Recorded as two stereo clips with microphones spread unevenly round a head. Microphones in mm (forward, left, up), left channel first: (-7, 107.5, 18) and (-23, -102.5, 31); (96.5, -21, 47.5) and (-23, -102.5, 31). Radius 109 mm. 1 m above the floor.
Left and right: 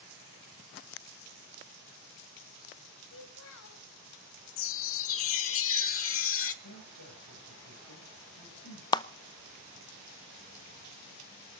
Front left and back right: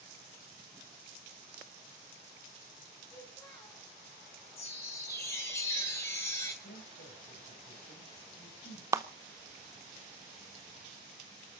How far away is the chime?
About 1.2 m.